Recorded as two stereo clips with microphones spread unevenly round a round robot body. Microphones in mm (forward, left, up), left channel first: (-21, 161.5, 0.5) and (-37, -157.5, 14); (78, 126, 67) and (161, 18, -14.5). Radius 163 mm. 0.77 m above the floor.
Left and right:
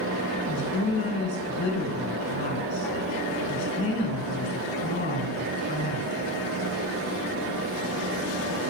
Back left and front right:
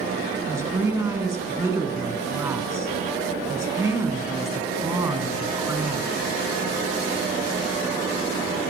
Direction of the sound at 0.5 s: 15° left.